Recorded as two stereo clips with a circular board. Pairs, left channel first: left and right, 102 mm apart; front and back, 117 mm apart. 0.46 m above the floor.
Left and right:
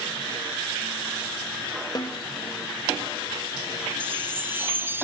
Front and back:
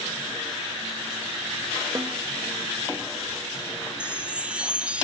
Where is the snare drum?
120° left, 1.1 m.